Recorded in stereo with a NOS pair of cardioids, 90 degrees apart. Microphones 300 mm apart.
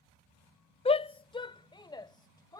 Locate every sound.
0.8 s a shout: 20° left; by 2.6 s 15° left